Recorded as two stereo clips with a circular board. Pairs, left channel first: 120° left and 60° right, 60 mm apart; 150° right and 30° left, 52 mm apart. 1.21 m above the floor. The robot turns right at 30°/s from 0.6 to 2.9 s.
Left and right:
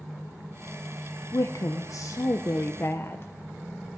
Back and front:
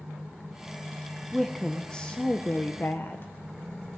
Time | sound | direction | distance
1.3 | a woman speaking | 120° left | 0.5 m